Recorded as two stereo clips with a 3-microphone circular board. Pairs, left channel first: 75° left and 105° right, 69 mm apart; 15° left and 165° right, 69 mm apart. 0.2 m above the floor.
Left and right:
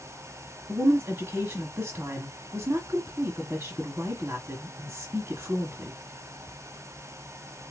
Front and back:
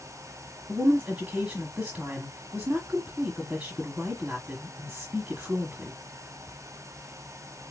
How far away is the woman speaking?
About 1.3 m.